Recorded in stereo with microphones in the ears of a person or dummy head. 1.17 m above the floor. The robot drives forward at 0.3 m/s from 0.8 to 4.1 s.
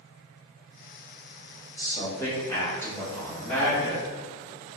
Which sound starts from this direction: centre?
A man speaking, at 1.8 s.